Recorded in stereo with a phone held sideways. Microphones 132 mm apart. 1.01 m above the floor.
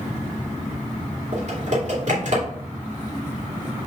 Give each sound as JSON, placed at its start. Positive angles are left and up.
{"t": 1.3, "sound": "typing on a keyboard", "side_deg": -55, "distance_m": 2.5}